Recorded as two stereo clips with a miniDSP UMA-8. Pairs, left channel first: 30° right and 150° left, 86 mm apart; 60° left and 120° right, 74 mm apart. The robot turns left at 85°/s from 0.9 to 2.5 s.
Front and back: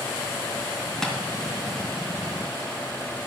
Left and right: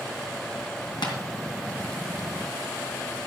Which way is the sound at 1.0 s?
55° left.